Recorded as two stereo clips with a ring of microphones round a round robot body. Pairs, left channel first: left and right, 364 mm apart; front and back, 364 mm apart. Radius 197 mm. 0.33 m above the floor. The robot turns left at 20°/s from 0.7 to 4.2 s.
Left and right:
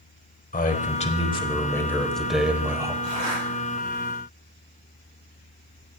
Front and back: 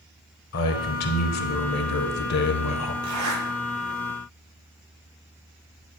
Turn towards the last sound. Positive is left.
turn(degrees=175)